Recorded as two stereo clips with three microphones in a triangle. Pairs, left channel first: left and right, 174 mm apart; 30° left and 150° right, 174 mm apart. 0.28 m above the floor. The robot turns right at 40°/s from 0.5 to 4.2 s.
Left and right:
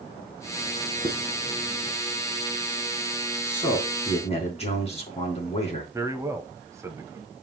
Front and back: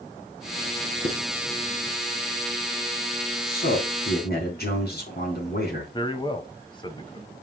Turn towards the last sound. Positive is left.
turn(degrees=-25)